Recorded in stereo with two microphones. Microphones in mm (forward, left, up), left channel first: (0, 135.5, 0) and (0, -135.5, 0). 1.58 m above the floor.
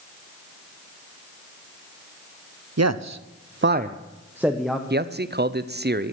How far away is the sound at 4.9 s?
About 0.7 m.